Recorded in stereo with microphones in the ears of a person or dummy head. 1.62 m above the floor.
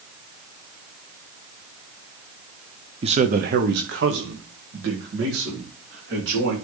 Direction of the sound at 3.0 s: 30° right (ahead or behind).